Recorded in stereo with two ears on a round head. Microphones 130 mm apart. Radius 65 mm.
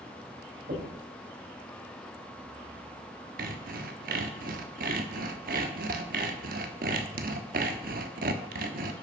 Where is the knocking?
65° right (ahead or behind), 4.5 m.